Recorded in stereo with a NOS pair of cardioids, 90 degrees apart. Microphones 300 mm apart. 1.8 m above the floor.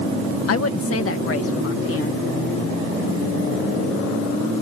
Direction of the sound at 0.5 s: 50° left.